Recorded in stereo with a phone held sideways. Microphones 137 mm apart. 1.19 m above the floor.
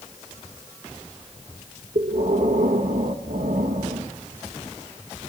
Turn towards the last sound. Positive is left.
turn(degrees=-70)  # may be behind; listen again after turning